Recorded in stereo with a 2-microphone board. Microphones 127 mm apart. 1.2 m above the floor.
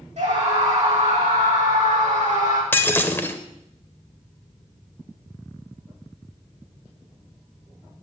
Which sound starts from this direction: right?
A scream, at 0.2 s.